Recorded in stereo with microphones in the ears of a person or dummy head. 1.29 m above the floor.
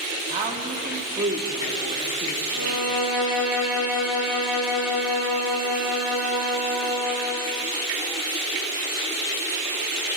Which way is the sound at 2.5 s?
5° right (ahead or behind).